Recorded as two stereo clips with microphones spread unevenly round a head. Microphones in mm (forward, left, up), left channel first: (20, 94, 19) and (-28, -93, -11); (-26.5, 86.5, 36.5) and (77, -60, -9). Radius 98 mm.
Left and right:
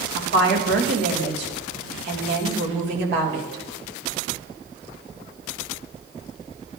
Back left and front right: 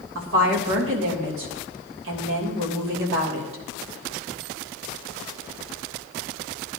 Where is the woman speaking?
65° right, 3 m.